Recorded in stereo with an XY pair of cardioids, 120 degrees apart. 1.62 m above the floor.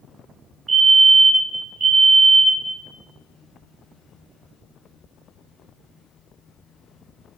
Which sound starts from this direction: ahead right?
A fire alarm, at 0.7 s.